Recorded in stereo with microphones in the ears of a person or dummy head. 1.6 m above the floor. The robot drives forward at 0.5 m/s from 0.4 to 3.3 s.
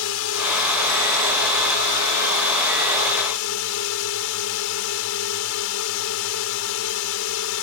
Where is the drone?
70° left (ahead or behind); by 7.6 s 65° left (ahead or behind).